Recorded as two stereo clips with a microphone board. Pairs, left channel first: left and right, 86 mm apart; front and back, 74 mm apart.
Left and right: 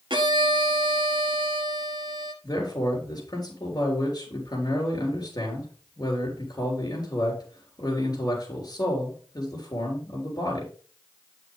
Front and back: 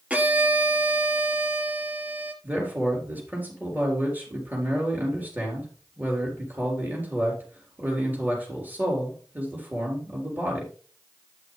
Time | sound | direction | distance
0.1 | a violin | 110° right | 0.9 m
2.4 | a man speaking | 120° left | 4 m